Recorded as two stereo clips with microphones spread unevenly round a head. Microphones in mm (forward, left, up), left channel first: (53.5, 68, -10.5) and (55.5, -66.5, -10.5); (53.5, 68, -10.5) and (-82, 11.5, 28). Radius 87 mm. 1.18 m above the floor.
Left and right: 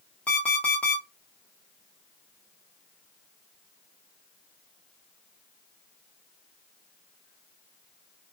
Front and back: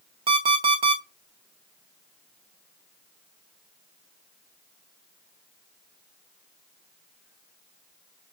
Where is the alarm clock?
175° left, 0.9 m.